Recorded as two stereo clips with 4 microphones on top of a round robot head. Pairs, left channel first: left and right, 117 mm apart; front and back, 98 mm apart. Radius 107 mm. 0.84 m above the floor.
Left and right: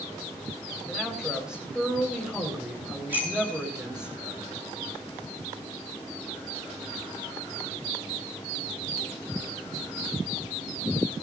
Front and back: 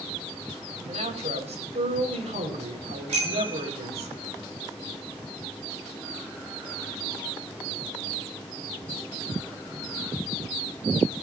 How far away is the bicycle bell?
About 10 m.